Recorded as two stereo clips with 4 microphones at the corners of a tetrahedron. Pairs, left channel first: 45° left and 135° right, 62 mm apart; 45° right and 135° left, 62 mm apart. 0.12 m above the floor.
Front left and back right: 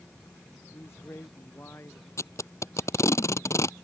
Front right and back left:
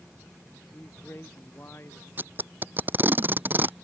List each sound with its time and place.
0.7 s a man speaking: straight ahead
2.2 s tape being pulled: 80° left